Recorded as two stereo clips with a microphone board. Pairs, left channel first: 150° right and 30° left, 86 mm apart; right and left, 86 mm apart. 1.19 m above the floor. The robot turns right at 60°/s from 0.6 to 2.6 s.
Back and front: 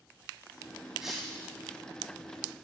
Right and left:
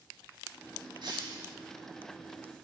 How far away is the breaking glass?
About 2.5 m.